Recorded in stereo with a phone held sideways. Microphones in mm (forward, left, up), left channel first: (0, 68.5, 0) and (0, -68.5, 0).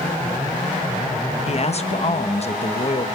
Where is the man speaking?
45° left (ahead or behind), 1.0 m.